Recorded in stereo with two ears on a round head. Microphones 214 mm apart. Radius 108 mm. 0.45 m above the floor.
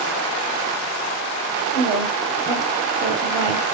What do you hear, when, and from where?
1.7 s a woman speaking: 15° right (ahead or behind), 2 m